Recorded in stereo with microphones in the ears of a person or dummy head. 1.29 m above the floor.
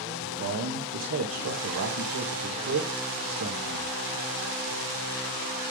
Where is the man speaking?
65° right (ahead or behind), 1.7 m.